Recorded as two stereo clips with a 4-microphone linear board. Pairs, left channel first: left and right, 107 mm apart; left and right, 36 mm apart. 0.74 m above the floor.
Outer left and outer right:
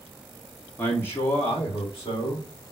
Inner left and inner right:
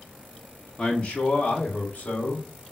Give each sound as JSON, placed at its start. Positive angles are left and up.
{"t": 0.8, "sound": "a man speaking", "side_deg": 15, "distance_m": 1.0}